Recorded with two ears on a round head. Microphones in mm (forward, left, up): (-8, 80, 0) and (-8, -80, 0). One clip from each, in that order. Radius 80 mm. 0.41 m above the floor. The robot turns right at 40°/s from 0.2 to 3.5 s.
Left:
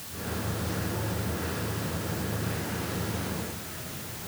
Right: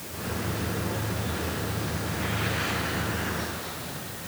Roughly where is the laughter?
I don't hear laughter.